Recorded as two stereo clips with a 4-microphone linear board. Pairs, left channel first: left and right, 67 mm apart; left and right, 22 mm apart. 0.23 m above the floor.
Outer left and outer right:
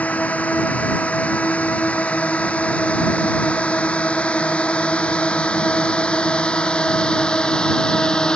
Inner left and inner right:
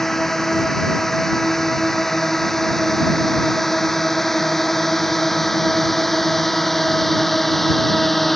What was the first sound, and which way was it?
A drone, 20° left (ahead or behind).